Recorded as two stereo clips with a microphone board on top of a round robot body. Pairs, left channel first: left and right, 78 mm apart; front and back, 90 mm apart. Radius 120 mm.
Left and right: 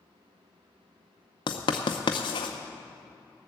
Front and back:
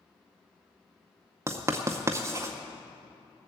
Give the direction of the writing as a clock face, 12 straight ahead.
8 o'clock.